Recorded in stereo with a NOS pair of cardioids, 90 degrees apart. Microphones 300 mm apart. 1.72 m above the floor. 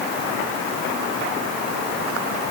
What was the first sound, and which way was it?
Only background noise.